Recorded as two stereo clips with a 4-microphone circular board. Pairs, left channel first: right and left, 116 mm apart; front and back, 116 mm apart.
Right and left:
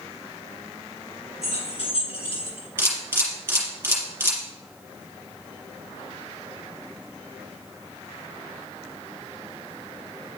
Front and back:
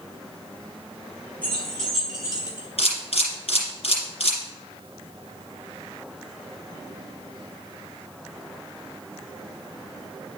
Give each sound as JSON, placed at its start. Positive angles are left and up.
{"t": 1.4, "sound": "keys jangling", "azimuth_deg": -75, "distance_m": 2.5}
{"t": 2.8, "sound": "a camera shutter", "azimuth_deg": 20, "distance_m": 2.5}